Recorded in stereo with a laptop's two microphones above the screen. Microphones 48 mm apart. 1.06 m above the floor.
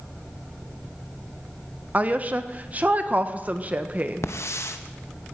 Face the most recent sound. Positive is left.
turn(degrees=75)  # may be behind; listen again after turning